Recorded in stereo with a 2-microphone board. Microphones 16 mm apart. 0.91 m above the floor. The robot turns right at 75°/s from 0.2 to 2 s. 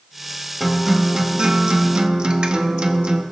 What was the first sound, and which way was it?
A guitar, straight behind.